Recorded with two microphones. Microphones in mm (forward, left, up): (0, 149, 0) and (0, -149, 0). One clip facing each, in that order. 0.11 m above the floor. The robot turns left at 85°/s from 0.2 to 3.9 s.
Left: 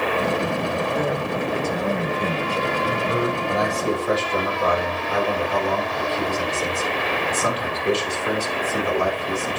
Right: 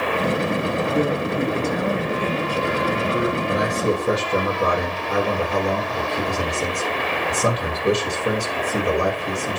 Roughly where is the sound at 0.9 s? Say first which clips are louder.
Right 3 dB; right.